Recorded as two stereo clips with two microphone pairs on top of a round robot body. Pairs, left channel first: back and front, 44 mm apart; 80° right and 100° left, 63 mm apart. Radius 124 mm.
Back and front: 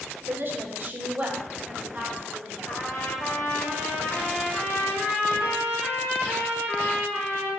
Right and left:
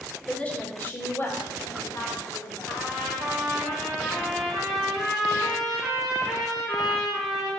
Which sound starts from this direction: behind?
A trumpet, at 2.7 s.